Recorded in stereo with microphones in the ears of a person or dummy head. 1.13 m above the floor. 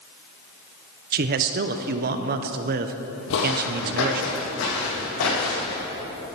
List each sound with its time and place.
1.1 s a man speaking: 45° right (ahead or behind), 0.6 m
3.3 s footsteps: 60° left (ahead or behind), 2 m; by 5.8 s 80° left, 6 m